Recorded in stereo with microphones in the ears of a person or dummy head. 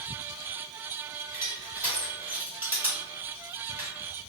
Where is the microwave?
No microwave in this recording.